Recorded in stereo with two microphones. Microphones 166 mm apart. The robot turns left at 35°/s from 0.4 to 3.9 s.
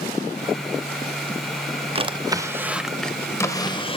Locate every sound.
1.9 s a drawer: 145° right, 0.8 m; by 4.0 s 145° left, 0.8 m